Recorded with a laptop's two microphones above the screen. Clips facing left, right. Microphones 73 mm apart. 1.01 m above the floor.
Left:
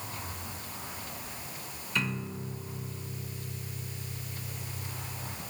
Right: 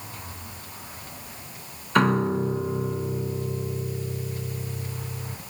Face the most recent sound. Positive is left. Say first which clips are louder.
# right 14 dB
turn(degrees=-60)  # may be behind; listen again after turning